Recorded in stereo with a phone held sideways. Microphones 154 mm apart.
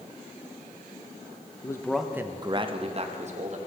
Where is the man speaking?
20° left (ahead or behind), 0.6 m; by 3.6 s 50° right (ahead or behind), 1.3 m.